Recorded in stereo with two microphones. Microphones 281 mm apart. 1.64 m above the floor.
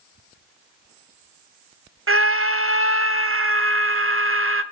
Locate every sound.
2.1 s a scream: 50° right (ahead or behind), 0.7 m